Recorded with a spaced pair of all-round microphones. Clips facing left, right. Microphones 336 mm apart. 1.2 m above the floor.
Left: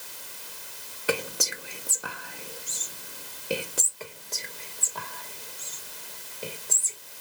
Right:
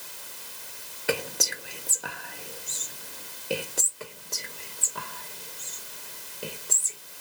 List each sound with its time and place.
1.1 s whispering: 5° left (ahead or behind), 0.7 m
4.0 s whispering: 15° right (ahead or behind), 1.2 m